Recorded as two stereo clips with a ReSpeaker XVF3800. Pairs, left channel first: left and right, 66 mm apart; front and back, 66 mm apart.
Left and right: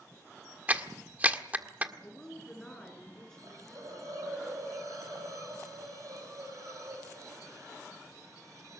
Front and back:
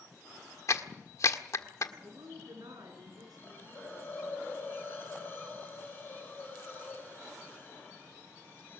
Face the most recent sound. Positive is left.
turn(degrees=-55)